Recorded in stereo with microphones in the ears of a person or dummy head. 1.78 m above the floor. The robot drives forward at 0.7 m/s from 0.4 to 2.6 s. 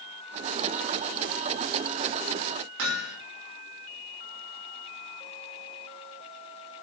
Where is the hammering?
75° right (ahead or behind), 6 m.